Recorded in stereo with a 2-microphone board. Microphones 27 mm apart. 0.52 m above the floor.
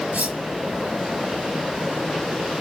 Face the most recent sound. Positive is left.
turn(degrees=-70)  # may be behind; listen again after turning